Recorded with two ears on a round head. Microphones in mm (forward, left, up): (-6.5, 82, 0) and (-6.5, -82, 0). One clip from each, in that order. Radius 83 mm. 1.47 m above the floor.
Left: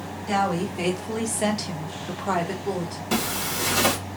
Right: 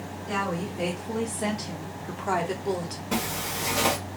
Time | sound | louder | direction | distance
0.3 | a woman speaking | left 5 dB | 75° left (ahead or behind) | 1.2 m
3.1 | a zipper | left 3 dB | 65° left (ahead or behind) | 1.3 m